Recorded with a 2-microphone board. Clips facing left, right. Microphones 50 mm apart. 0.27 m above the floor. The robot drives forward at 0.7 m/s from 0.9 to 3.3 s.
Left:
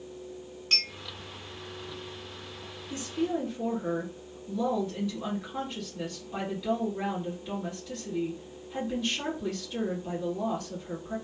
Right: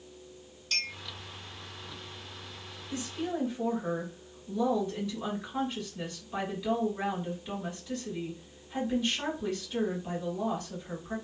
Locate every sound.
0.7 s a clink: 40° left (ahead or behind), 1.3 m
2.9 s a woman speaking: centre (ahead or behind), 1.8 m